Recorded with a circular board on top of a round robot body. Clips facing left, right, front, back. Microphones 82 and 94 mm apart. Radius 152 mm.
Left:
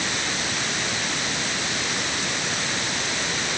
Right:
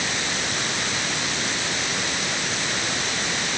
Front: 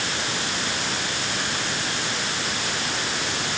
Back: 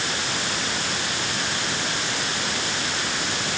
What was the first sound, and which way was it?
Only background noise.